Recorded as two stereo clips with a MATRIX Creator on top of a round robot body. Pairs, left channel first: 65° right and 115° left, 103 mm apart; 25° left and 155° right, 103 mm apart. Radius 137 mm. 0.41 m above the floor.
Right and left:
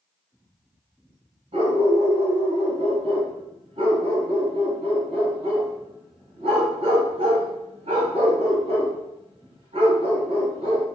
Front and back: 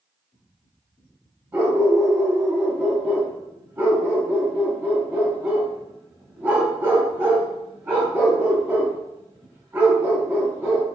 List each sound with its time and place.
1.5 s a dog barking: 130° left, 1.3 m